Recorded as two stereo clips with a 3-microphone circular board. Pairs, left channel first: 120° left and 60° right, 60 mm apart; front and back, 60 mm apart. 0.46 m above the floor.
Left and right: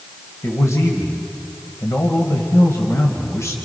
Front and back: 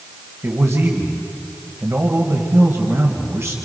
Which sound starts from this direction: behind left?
A man speaking, at 0.4 s.